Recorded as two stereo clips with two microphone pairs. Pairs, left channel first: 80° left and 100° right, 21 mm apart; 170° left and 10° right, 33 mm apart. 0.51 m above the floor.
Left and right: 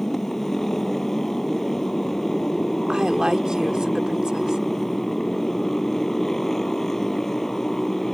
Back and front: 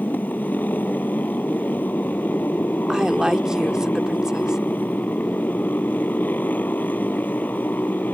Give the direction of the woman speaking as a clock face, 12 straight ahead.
2 o'clock.